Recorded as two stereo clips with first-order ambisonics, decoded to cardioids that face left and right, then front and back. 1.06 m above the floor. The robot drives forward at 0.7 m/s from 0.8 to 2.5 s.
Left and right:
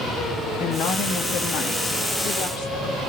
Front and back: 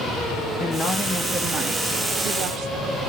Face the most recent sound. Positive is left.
turn(degrees=155)